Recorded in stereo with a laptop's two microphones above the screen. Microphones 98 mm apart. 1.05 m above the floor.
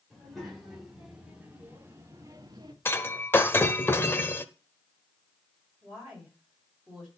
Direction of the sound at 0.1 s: 5° left (ahead or behind).